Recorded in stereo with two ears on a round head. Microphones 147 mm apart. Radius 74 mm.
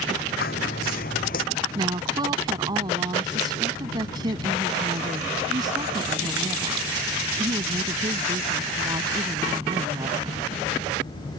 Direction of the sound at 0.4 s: 60° left (ahead or behind).